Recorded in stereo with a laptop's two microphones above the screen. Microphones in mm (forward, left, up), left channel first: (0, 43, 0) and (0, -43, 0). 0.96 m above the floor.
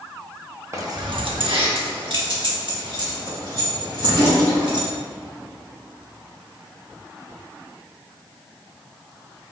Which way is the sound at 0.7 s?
35° right (ahead or behind).